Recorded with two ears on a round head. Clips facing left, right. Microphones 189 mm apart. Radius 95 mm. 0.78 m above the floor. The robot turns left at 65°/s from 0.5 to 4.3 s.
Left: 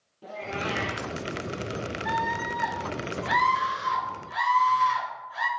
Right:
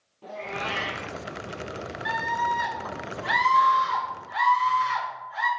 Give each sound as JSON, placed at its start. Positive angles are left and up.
{"t": 0.2, "sound": "a cat meowing", "azimuth_deg": 10, "distance_m": 1.5}
{"t": 2.0, "sound": "a scream", "azimuth_deg": -85, "distance_m": 3.0}